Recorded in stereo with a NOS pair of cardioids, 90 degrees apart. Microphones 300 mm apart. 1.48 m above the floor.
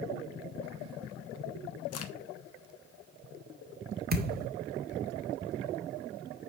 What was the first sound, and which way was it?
A crack, 50° left.